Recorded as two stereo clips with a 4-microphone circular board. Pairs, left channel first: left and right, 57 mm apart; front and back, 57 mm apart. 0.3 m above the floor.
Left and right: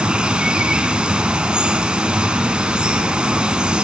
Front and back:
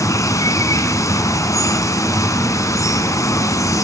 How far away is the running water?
About 0.8 m.